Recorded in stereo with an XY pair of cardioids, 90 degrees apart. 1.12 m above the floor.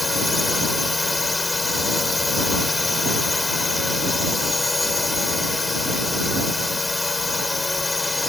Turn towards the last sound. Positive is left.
turn(degrees=25)